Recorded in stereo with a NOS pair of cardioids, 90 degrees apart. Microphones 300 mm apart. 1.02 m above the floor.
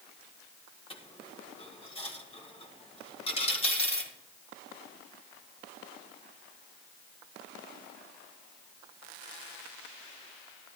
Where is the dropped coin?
20° left, 1.9 m.